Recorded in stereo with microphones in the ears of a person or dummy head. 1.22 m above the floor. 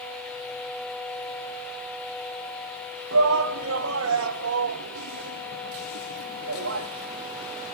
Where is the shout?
80° right, 1.8 m.